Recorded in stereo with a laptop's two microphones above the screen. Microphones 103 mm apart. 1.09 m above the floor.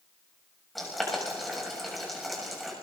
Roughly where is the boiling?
Centre.